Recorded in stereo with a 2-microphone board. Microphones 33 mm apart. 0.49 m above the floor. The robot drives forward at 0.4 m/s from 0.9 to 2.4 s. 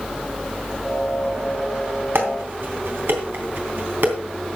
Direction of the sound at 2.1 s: 80° right.